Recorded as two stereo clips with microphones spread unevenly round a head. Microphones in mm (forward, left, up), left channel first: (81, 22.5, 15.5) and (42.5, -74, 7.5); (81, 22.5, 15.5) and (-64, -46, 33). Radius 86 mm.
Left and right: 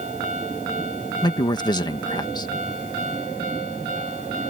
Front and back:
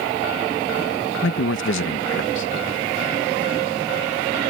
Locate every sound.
1.2 s a man speaking: 20° left